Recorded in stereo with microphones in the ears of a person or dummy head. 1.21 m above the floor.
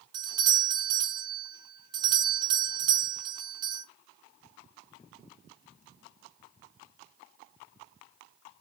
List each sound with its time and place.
0.1 s a doorbell: 20° right (ahead or behind), 0.6 m